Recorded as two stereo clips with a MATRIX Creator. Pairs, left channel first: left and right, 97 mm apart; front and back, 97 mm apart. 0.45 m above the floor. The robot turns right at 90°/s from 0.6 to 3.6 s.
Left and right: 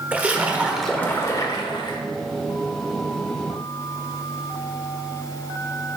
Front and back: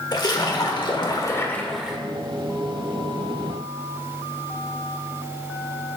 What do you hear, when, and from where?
0.1 s a splash: 20° right, 1.0 m; by 2.0 s 105° left, 1.0 m